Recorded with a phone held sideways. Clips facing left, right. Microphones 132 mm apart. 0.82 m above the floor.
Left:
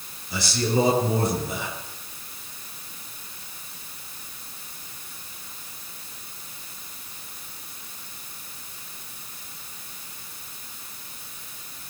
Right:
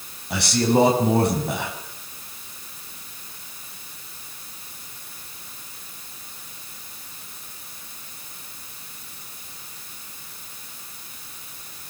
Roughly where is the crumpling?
I don't hear crumpling.